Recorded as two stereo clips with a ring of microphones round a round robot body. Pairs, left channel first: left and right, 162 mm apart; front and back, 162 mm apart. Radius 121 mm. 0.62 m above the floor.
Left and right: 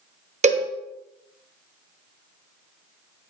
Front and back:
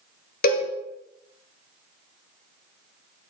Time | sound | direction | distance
0.4 | a cowbell | 45° right | 1.4 m